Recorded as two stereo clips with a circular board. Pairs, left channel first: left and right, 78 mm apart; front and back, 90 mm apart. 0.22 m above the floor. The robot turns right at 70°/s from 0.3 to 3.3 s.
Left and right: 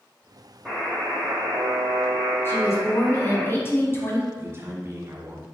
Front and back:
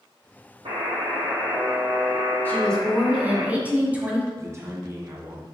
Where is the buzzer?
Straight behind, 3 m; by 3.5 s 5° left, 3 m.